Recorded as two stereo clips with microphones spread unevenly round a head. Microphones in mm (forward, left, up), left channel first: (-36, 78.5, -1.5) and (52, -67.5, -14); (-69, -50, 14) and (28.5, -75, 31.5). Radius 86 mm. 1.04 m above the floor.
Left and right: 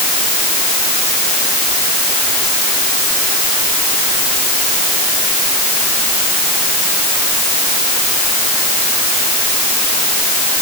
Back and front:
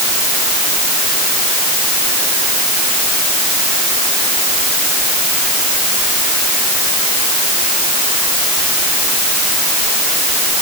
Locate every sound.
Only background noise.